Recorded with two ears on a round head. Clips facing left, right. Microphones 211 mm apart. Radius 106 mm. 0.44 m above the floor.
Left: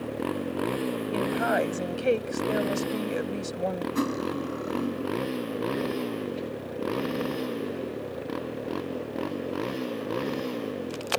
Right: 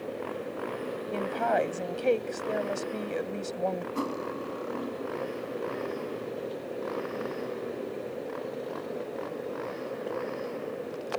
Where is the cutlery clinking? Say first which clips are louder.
Left 5 dB; 25° left (ahead or behind).